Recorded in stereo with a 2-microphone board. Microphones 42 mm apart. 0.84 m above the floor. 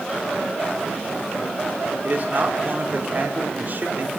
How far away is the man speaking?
About 2.5 m.